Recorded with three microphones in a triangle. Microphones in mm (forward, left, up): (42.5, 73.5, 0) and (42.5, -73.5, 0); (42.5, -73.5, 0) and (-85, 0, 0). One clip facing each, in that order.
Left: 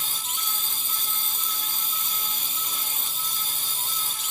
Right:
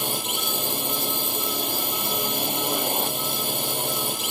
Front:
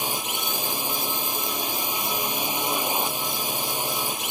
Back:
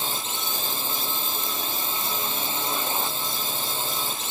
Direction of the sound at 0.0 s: 105° right.